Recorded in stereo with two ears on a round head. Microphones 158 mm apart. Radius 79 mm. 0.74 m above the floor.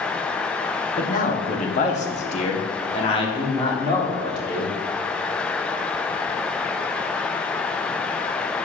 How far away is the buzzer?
I don't hear a buzzer.